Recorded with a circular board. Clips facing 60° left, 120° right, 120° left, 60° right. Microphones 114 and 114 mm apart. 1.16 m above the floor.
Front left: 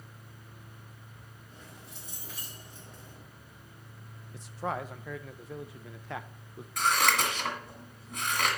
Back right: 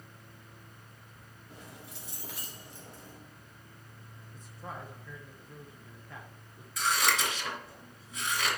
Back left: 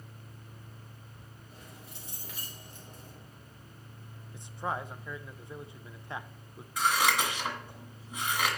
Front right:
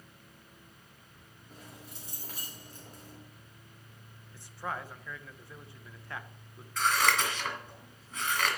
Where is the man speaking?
50° left, 0.5 m.